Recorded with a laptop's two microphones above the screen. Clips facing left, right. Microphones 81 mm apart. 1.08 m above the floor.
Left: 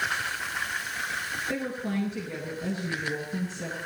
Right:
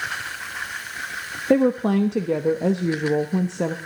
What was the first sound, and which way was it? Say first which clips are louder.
A woman speaking: right 15 dB; 75° right (ahead or behind).